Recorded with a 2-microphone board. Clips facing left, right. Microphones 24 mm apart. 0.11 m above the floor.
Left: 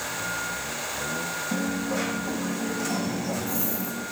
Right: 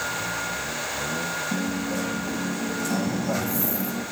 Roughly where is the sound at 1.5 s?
Centre.